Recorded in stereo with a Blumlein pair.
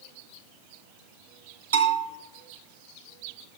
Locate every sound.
1.7 s a bell: 70° right, 2.5 m